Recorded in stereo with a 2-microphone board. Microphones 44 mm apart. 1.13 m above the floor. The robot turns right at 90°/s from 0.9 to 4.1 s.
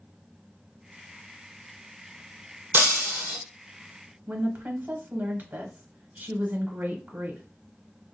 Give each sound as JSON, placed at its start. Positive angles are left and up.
{"t": 2.7, "sound": "breaking glass", "azimuth_deg": -95, "distance_m": 1.6}
{"t": 4.3, "sound": "a woman speaking", "side_deg": -40, "distance_m": 1.1}